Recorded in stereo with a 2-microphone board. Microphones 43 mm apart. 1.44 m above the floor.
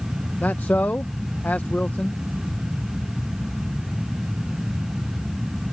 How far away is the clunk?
I don't hear a clunk.